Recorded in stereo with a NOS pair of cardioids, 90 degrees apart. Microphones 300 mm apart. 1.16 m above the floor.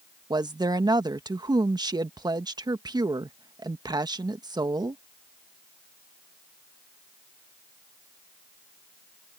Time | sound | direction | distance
0.3 | a woman speaking | 15° right | ?